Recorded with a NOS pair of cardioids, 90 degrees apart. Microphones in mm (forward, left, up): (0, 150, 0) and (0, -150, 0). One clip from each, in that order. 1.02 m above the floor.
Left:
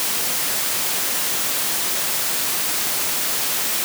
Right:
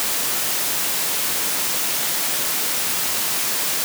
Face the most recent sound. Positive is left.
No sound to turn to.